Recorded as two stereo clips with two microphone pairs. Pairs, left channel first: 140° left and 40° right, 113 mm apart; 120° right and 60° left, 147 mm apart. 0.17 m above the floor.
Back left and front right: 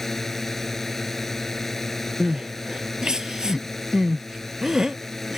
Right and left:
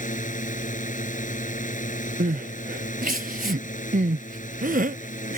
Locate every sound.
0.0 s a drone: 135° right
2.2 s crying: 45° left